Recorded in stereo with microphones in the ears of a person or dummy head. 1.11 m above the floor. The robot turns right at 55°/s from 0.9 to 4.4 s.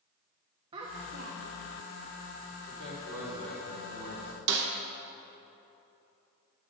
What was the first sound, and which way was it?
A child speaking, 140° right.